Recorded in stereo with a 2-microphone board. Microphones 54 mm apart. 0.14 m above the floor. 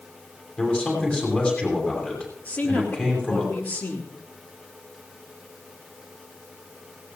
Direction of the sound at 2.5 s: 35° left (ahead or behind).